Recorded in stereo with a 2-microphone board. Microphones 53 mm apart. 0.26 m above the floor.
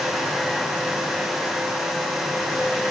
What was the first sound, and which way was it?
Only background noise.